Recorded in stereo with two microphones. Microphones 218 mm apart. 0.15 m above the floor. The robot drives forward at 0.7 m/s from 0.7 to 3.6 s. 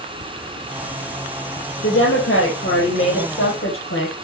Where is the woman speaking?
65° left (ahead or behind), 4.5 m; by 4.2 s 70° left (ahead or behind), 4.5 m.